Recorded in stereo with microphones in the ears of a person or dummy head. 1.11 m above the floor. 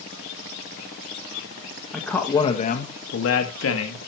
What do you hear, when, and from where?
1.9 s a man speaking: 5° right (ahead or behind), 1.4 m; by 4.0 s 80° left, 2 m